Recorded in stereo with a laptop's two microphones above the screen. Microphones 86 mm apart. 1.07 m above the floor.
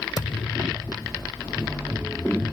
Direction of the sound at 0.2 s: 55° left (ahead or behind).